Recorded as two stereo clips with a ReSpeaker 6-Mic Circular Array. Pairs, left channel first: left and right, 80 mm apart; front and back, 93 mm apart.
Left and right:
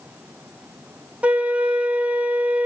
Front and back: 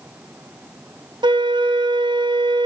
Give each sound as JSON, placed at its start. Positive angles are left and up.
{"t": 1.2, "sound": "a flute", "azimuth_deg": -160, "distance_m": 0.7}